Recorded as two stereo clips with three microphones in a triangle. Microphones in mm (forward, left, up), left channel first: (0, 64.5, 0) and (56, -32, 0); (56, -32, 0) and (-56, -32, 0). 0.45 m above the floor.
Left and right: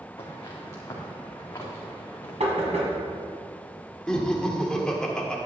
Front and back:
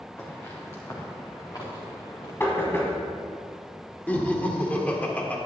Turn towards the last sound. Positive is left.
turn(degrees=50)